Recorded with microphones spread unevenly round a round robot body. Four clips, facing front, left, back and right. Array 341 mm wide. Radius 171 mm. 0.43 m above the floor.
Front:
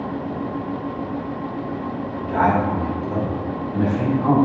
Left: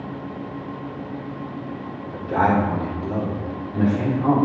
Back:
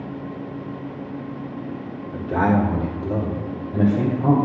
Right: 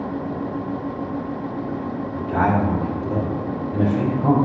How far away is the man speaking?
About 1.1 m.